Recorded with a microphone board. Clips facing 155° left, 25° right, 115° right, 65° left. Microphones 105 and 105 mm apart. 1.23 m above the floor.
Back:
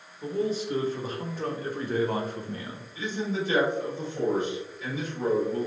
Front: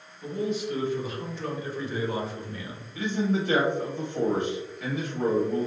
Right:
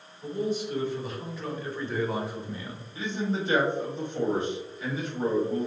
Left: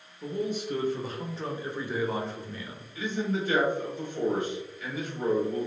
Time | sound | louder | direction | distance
0.2 | a man speaking | back 1 dB, right 2 dB | 100° left | 1.4 m
3.0 | a man speaking | front 4 dB, even | 50° right | 1.4 m